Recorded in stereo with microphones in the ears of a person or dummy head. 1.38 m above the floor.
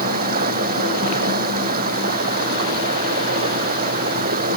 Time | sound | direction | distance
0.0 | running water | 50° right (ahead or behind) | ?